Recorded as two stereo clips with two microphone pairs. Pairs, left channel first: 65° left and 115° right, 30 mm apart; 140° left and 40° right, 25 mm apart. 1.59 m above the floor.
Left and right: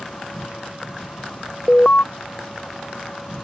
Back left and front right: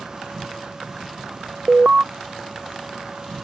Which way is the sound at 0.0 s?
15° left.